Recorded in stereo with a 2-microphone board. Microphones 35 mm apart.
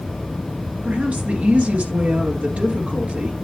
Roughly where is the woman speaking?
Right.